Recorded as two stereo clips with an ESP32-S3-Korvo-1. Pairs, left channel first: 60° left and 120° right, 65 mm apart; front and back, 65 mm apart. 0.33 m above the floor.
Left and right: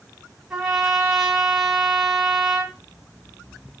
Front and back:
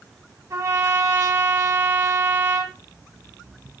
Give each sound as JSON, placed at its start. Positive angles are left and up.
{"t": 0.5, "sound": "a trumpet", "azimuth_deg": 160, "distance_m": 2.5}